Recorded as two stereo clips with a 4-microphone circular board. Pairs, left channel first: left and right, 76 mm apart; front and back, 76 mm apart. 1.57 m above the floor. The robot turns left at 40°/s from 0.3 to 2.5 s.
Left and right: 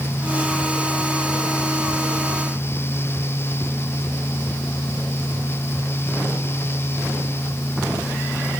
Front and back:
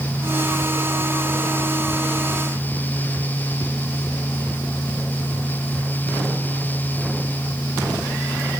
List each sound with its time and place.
Only background noise.